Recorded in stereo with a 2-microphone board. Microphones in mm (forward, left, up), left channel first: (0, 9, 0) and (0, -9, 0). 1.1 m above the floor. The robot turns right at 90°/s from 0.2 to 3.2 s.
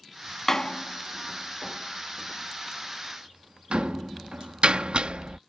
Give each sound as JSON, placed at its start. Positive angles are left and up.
{"t": 0.5, "sound": "a door slam", "side_deg": 20}